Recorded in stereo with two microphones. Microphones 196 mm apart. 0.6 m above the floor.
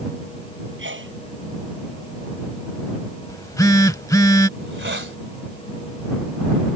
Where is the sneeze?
80° right.